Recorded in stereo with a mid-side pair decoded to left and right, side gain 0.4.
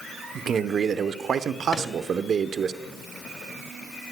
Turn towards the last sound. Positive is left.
turn(degrees=35)